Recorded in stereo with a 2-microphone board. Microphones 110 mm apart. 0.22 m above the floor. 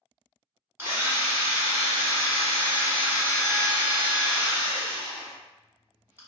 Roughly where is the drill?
Right.